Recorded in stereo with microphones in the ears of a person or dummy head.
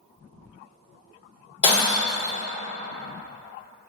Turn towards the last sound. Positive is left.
turn(degrees=45)  # may be behind; listen again after turning